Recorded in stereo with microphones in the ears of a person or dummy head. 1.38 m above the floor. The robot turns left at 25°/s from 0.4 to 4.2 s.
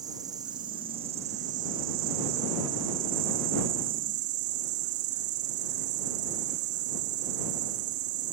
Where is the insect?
20° right; by 8.3 s 115° right.